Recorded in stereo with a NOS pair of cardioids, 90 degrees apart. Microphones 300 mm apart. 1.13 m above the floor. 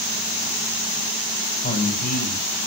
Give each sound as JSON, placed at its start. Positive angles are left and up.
{"t": 1.6, "sound": "a man speaking", "azimuth_deg": 30, "distance_m": 7.5}